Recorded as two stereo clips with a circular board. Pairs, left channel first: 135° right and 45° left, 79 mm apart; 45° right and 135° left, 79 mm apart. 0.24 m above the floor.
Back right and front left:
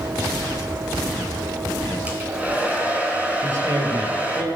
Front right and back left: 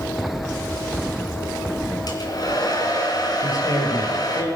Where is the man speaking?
5° right, 5 m.